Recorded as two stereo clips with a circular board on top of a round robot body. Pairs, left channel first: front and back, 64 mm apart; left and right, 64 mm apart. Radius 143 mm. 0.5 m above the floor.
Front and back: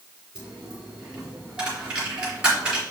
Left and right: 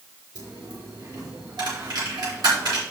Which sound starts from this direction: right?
A dropped coin, at 0.3 s.